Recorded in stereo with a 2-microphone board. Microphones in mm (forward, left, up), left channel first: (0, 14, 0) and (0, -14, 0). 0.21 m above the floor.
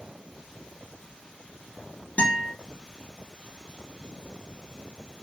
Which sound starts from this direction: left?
A guitar, at 2.2 s.